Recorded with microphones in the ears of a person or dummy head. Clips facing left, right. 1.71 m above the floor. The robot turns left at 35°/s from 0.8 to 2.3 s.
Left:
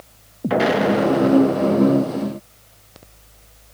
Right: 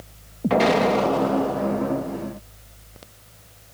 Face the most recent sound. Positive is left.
turn(degrees=120)